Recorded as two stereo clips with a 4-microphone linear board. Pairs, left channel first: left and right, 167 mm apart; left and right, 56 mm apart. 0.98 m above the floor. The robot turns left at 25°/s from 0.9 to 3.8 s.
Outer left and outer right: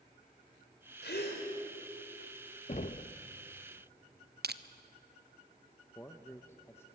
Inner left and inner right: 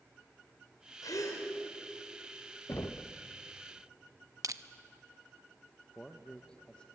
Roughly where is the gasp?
Left.